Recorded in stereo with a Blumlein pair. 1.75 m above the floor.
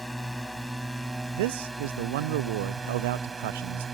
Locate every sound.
0.0 s a drone: straight ahead; by 4.0 s 15° right
1.3 s a man speaking: 50° right